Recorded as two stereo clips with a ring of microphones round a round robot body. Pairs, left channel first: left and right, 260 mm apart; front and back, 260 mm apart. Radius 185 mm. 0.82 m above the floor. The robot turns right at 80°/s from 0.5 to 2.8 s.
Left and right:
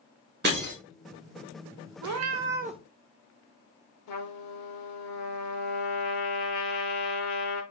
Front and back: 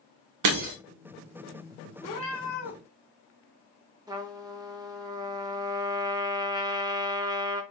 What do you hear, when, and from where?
0.4 s breaking glass: 155° right, 1.2 m; by 0.7 s 135° right, 1.2 m
2.0 s a cat meowing: 75° right, 0.5 m; by 2.8 s 15° right, 0.5 m
4.1 s a trumpet: 105° left, 0.9 m